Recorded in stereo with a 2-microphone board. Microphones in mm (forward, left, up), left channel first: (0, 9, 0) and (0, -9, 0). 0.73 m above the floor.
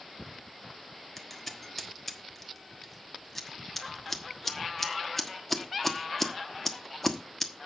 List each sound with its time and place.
1.2 s scissors: 10° left (ahead or behind), 1.2 m